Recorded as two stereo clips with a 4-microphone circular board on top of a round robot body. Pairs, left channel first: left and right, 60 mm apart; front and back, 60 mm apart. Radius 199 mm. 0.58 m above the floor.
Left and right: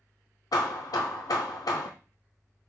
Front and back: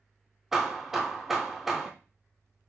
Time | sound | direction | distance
0.5 | hammering | 95° left | 0.6 m